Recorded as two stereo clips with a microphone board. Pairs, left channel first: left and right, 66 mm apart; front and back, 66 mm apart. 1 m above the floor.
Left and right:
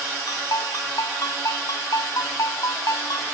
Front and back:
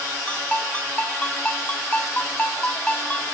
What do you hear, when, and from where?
0.3 s a ringtone: 70° left